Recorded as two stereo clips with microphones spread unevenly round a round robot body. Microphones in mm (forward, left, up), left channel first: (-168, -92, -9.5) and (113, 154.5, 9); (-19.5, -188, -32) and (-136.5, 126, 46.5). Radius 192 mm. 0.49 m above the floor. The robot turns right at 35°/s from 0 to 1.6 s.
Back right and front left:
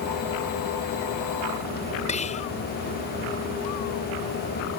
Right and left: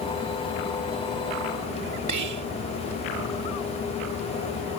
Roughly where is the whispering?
Behind left.